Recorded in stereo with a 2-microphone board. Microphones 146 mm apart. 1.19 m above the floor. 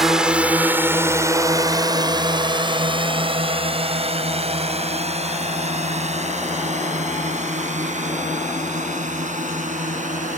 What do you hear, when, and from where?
0.0 s a drone: centre (ahead or behind); by 10.4 s 60° right (ahead or behind)